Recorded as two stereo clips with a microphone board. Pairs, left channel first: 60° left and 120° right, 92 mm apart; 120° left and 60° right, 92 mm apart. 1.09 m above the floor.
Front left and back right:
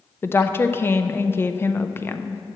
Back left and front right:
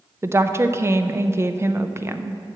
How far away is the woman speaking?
About 0.5 m.